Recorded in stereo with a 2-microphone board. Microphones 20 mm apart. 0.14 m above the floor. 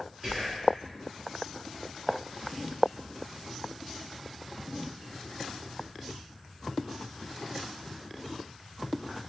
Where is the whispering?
40° right (ahead or behind), 1.8 m.